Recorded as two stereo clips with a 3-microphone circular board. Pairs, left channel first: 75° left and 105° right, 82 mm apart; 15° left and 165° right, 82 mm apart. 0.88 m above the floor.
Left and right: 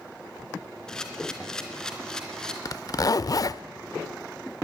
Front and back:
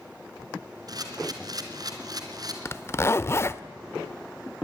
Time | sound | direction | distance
0.9 | a camera shutter | 155° left | 3 m
2.6 | a zipper | 65° left | 0.7 m